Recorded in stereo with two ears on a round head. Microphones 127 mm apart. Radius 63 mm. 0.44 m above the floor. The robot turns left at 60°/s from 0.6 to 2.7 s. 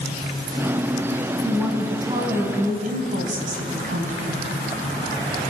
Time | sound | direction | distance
1.4 | a woman speaking | 10° left | 4 m